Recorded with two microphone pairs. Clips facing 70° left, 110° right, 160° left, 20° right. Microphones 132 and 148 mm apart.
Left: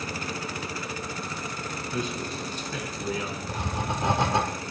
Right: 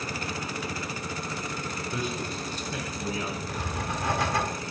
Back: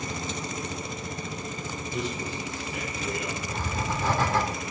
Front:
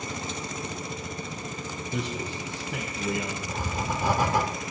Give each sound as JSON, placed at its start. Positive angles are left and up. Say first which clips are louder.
{"t": 1.9, "sound": "a man speaking", "louder": "left 2 dB, even", "azimuth_deg": -30, "distance_m": 1.7}
{"t": 3.5, "sound": "writing", "louder": "left 2 dB, front 1 dB", "azimuth_deg": 35, "distance_m": 1.3}